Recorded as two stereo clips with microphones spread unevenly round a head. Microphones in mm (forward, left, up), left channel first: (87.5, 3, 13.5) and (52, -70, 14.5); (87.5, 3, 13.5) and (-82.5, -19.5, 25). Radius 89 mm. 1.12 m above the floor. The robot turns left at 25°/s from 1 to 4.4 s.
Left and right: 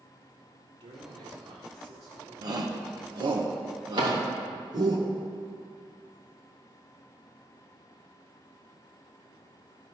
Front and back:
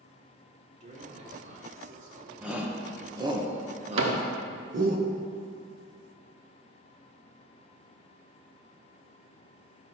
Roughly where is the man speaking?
Behind right.